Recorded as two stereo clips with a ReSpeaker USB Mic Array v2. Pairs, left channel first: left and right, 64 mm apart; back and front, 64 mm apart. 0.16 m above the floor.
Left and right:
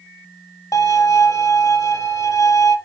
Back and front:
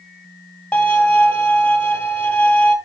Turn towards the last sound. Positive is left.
turn(degrees=110)